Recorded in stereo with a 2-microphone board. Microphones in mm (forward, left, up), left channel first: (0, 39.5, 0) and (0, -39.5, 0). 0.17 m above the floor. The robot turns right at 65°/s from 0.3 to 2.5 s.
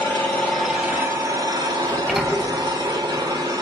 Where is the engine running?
160° left, 1.9 m; by 3.6 s 60° right, 1.9 m.